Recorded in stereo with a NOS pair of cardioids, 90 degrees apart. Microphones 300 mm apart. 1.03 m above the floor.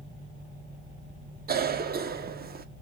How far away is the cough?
About 0.8 m.